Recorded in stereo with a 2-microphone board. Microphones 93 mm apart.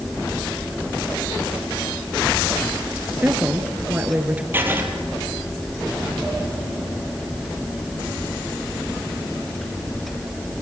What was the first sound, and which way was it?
A woman speaking, 20° right (ahead or behind).